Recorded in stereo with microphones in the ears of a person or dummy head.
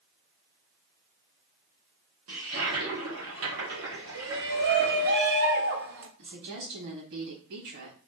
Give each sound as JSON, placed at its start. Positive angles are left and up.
{"t": 2.3, "sound": "a toilet flushing", "side_deg": -80, "distance_m": 2.0}
{"t": 4.2, "sound": "a shout", "side_deg": -65, "distance_m": 1.2}
{"t": 6.2, "sound": "a woman speaking", "side_deg": -60, "distance_m": 2.5}